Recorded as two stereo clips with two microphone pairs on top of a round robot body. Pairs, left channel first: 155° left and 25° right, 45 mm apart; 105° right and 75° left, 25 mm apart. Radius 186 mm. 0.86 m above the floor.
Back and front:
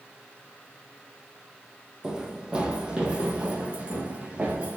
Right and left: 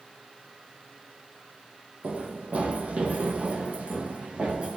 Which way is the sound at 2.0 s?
50° left.